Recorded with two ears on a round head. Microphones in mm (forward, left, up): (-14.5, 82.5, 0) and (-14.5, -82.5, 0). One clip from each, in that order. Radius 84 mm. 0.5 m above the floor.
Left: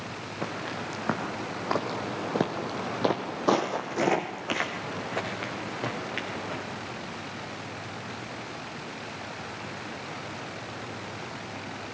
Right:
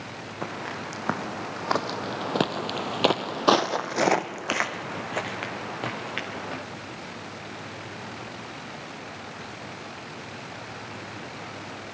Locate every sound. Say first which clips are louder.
0.4 s footsteps: right 1 dB; 10° right (ahead or behind), 2.5 m; by 6.6 s 25° right (ahead or behind), 3.5 m